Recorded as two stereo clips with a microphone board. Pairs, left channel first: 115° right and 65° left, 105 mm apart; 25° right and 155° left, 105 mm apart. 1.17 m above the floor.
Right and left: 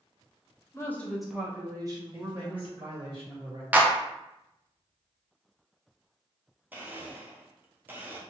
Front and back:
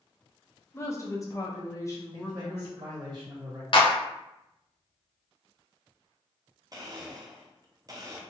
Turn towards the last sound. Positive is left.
turn(degrees=130)